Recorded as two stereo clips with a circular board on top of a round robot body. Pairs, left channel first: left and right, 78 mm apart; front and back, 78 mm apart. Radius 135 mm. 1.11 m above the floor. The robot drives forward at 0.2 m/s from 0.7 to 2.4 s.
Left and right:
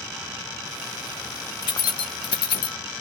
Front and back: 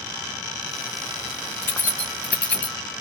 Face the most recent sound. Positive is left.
turn(degrees=75)